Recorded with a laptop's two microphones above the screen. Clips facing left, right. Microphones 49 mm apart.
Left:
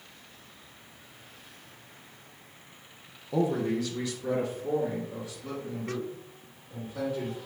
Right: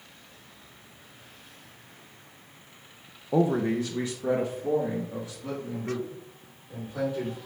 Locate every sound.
3.3 s a man speaking: 30° right (ahead or behind), 0.6 m; by 7.4 s 25° right (ahead or behind), 3 m